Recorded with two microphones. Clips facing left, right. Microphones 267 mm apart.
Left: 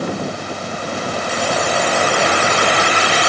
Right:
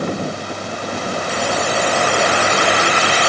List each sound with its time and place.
Only background noise.